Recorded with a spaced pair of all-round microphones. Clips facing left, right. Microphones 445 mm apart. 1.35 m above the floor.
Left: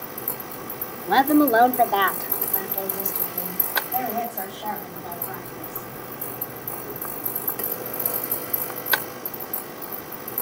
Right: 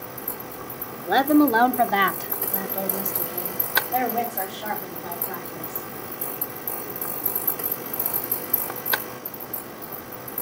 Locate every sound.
1.1 s a woman speaking: 20° left (ahead or behind), 0.6 m; by 5.9 s 85° right, 3.5 m